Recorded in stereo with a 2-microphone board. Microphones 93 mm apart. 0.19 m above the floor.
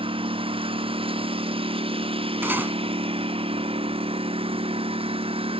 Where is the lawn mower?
75° right (ahead or behind); by 5.6 s 85° right.